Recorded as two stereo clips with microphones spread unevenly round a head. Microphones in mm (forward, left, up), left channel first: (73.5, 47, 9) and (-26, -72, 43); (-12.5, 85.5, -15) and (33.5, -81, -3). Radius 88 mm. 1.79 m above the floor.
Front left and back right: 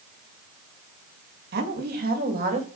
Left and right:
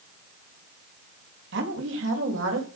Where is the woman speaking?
105° right, 3.5 m; by 2.7 s 95° right, 4.5 m.